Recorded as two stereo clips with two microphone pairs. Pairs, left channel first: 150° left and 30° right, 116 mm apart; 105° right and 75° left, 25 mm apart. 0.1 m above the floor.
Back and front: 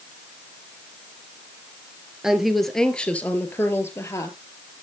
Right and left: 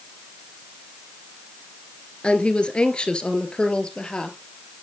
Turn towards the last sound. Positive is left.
turn(degrees=-155)